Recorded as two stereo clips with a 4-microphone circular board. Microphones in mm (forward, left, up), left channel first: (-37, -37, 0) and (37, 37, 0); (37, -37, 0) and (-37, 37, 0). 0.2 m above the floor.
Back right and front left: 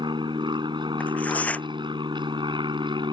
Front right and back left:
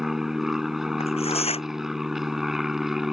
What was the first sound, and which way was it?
An aircraft, 50° left.